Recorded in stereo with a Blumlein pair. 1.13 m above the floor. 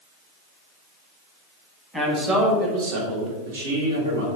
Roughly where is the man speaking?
Ahead.